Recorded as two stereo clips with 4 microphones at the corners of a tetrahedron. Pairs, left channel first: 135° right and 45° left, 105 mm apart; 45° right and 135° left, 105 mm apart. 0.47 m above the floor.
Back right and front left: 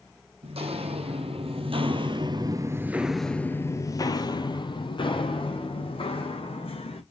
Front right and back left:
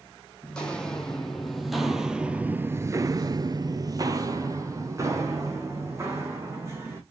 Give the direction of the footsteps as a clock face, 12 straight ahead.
11 o'clock.